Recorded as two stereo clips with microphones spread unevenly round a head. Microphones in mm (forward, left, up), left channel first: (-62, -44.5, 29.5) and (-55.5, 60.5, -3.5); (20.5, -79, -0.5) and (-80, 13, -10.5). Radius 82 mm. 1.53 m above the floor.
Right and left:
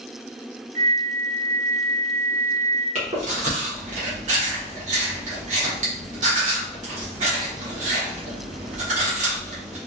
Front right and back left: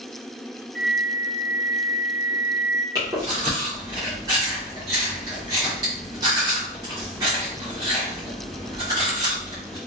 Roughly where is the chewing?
Ahead left.